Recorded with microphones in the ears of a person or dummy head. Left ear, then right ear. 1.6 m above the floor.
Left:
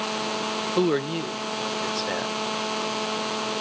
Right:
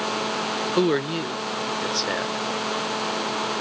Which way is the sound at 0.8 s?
10° right (ahead or behind).